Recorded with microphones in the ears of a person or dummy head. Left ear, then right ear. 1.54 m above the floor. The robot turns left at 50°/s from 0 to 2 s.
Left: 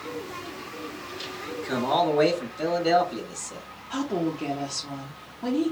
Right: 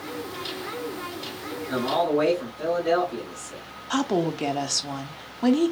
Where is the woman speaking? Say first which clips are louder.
Right 4 dB; 55° right (ahead or behind), 0.5 m.